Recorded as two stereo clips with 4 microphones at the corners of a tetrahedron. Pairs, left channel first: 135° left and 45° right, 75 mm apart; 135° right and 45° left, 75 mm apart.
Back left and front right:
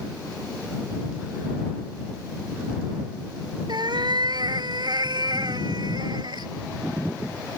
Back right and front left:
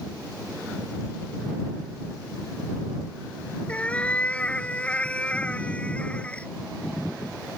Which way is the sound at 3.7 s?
65° right.